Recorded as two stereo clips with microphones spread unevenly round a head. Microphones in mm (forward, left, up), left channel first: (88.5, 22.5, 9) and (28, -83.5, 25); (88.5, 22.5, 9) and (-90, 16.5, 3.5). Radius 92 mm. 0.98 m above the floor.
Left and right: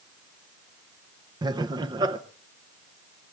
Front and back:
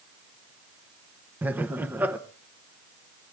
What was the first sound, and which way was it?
Laughter, 115° right.